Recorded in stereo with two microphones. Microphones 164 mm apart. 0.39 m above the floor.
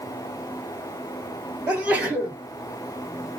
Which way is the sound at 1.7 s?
10° right (ahead or behind).